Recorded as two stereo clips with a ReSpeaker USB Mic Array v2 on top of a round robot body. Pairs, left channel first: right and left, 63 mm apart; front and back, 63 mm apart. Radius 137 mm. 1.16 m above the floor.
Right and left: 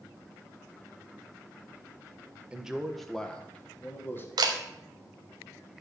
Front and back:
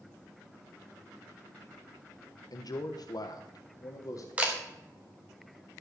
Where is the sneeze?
No sneeze in this recording.